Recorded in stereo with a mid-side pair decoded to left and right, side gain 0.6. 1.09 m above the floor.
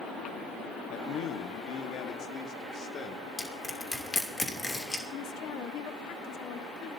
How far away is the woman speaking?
About 1.2 m.